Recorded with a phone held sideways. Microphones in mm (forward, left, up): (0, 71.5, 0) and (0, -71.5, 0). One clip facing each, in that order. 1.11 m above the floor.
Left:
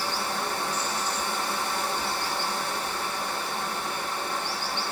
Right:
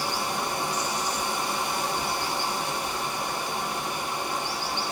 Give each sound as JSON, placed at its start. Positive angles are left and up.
{"t": 0.0, "sound": "running water", "side_deg": -15, "distance_m": 0.8}